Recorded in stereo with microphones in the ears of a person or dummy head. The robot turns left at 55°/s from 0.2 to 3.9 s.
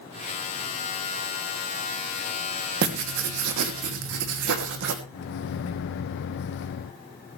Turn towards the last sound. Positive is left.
turn(degrees=55)  # may be behind; listen again after turning